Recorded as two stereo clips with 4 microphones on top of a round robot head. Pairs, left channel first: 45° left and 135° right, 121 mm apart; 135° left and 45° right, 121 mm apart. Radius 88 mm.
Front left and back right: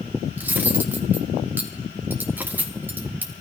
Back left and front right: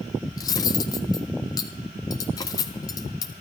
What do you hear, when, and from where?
0.4 s cutlery clinking: 165° left, 0.5 m